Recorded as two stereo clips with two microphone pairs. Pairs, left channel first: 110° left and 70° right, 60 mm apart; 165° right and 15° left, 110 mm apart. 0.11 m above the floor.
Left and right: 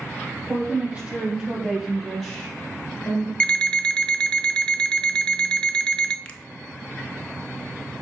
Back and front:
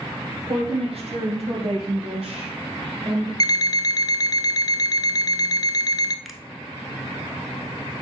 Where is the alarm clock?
175° left, 0.7 m.